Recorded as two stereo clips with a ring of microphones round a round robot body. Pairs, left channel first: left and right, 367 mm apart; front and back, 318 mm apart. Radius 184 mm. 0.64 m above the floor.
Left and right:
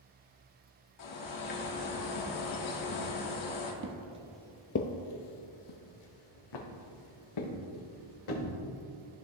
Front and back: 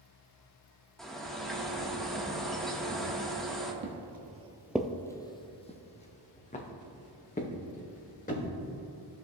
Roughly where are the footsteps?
Behind right.